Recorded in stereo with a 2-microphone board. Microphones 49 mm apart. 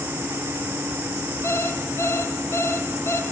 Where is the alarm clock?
70° left (ahead or behind), 2.5 m.